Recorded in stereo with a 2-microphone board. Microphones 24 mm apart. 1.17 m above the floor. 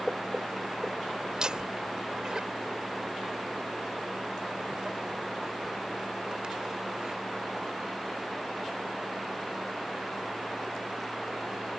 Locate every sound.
1.3 s laughter: 35° right (ahead or behind)